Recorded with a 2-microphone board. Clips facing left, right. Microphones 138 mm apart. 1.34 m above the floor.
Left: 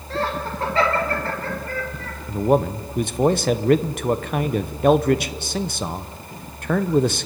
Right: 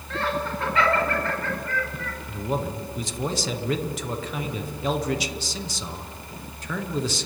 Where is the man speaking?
60° left (ahead or behind), 0.8 m.